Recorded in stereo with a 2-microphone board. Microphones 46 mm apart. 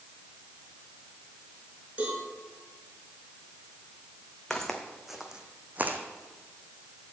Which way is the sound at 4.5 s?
10° left (ahead or behind).